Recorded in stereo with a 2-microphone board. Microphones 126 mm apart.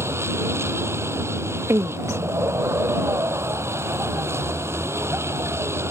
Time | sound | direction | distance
0.0 | a vehicle | 20° right (ahead or behind) | ?
1.7 | a woman speaking | 25° right (ahead or behind) | ?